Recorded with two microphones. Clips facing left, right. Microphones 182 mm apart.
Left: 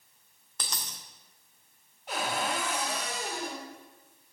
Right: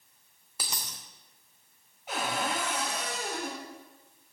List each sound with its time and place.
0.6 s a dropped coin: 10° right (ahead or behind), 1.7 m
2.1 s a cupboard door: 5° right (ahead or behind), 3.5 m